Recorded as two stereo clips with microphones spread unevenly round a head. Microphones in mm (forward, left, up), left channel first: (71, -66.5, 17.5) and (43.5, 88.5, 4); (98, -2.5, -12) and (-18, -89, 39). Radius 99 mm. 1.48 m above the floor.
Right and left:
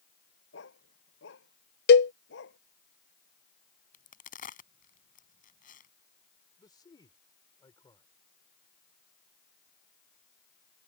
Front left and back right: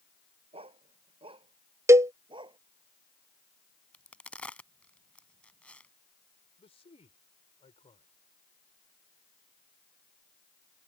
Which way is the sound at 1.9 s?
75° right.